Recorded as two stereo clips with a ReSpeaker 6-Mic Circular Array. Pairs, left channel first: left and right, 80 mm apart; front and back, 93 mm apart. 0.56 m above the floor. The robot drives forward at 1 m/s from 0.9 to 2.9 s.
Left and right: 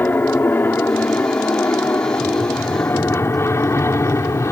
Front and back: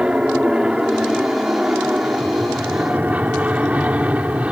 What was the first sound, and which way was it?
An aircraft, 115° left.